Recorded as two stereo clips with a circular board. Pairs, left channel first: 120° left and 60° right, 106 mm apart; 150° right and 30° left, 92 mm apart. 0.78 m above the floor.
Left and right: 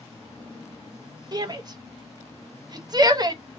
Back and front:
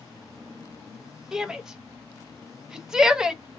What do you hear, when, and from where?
1.3 s a shout: 50° right, 0.6 m